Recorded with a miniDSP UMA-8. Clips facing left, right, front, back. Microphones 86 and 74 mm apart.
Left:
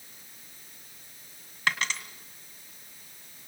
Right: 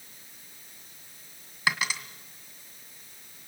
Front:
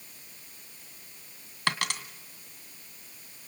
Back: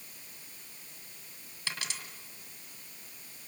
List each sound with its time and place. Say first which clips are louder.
1.7 s a dropped coin: right 1 dB, front 10 dB; 10° right, 1.9 m